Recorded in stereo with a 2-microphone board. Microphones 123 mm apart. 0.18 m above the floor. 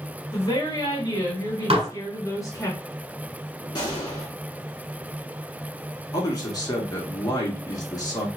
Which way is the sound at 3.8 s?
35° left (ahead or behind).